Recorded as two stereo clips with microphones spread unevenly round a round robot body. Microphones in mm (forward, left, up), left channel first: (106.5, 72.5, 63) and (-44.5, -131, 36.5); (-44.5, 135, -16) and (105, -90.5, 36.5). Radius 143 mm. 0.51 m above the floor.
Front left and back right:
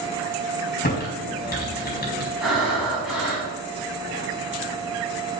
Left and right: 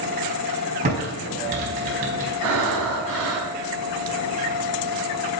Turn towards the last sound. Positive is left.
turn(degrees=-35)